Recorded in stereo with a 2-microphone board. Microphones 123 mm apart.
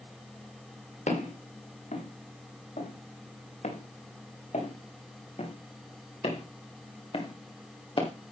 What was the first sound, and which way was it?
Footsteps, 90° left.